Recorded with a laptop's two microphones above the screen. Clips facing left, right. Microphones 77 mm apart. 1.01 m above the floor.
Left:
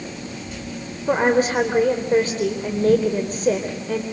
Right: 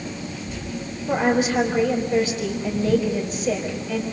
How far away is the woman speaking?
About 4 m.